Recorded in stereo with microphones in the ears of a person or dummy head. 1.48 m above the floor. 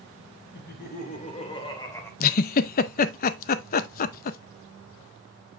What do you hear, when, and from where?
0.5 s laughter: 55° left (ahead or behind), 1.7 m; by 2.1 s 15° left (ahead or behind), 1.9 m
2.2 s a giggle: 45° left (ahead or behind), 0.5 m